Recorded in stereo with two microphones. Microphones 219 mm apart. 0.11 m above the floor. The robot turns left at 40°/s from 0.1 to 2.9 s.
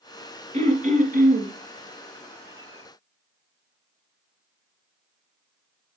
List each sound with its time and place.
0.5 s throat clearing: 55° right, 1.9 m; by 1.5 s 90° right, 1.9 m